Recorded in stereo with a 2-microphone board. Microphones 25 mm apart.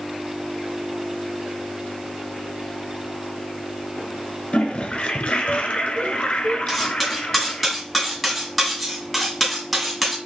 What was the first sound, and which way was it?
A toilet flushing, 45° left (ahead or behind).